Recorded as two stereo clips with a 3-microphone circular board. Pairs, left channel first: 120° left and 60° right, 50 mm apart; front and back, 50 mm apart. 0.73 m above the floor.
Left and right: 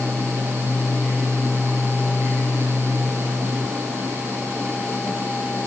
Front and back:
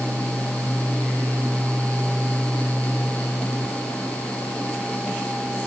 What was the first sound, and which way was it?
Only background noise.